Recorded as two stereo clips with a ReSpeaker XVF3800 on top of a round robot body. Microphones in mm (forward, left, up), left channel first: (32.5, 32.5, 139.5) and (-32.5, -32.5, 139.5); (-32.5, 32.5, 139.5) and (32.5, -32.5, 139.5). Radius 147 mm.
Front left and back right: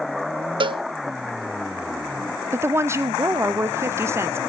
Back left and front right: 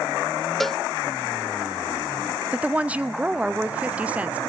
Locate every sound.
0.6 s a cowbell: 140° right, 0.5 m
2.5 s a woman speaking: 110° right, 0.9 m